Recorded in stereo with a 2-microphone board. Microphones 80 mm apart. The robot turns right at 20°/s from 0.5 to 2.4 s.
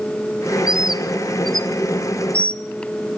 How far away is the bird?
About 0.8 m.